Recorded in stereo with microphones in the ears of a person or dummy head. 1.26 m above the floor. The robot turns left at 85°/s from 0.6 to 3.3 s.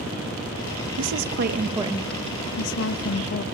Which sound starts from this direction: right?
A woman speaking, at 1.0 s.